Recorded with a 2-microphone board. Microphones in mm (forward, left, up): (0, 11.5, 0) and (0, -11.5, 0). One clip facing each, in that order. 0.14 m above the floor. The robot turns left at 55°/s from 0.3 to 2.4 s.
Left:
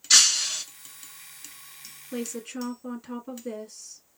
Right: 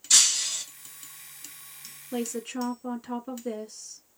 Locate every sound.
0.1 s breaking glass: 35° left (ahead or behind), 1.0 m; by 0.6 s 40° left (ahead or behind), 1.0 m
2.1 s a woman speaking: centre (ahead or behind), 1.5 m; by 4.2 s 10° right (ahead or behind), 1.5 m